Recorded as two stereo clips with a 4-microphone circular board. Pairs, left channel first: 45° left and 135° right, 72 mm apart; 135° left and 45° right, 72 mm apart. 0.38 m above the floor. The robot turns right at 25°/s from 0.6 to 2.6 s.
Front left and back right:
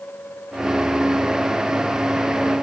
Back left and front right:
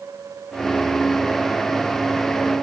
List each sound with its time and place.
Only background noise.